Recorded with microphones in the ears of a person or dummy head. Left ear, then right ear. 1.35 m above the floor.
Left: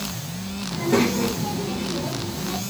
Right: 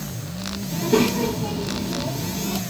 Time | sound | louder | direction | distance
0.7 | a child speaking | right 1 dB | 70° left (ahead or behind) | 1.3 m